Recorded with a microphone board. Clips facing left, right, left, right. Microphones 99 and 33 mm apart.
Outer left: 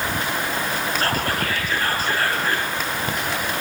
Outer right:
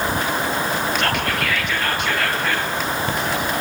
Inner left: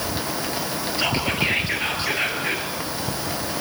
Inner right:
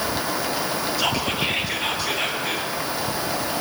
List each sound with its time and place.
1.0 s whispering: 35° left (ahead or behind), 7.5 m